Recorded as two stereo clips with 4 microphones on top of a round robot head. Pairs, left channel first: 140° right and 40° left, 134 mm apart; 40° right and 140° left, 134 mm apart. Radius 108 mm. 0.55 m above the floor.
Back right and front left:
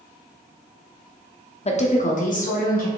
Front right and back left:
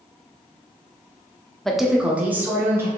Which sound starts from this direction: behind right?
A woman speaking, at 1.6 s.